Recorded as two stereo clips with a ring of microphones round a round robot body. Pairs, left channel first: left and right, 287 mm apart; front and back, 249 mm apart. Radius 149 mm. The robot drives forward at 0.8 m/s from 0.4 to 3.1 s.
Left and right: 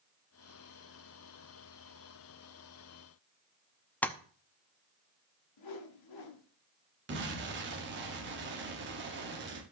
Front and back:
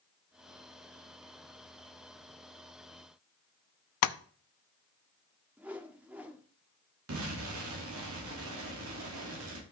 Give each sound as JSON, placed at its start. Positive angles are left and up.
{"t": 4.0, "sound": "tapping", "azimuth_deg": 5, "distance_m": 0.6}
{"t": 5.6, "sound": "a whoosh", "azimuth_deg": 95, "distance_m": 1.4}
{"t": 7.1, "sound": "an explosion", "azimuth_deg": -140, "distance_m": 1.9}